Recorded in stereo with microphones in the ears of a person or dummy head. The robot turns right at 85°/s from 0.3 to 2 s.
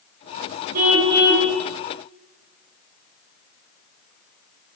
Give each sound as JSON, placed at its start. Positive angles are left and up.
{"t": 0.7, "sound": "a car horn", "azimuth_deg": -50, "distance_m": 8.5}